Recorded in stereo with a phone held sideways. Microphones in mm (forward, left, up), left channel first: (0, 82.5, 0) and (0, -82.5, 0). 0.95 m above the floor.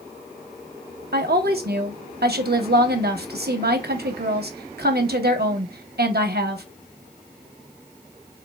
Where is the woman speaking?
75° right (ahead or behind), 0.8 m.